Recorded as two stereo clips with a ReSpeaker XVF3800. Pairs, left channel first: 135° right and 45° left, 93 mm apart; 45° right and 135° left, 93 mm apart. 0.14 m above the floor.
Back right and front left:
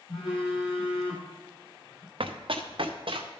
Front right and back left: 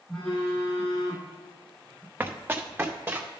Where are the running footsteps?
65° left, 1.2 m; by 3.3 s 70° left, 2.0 m.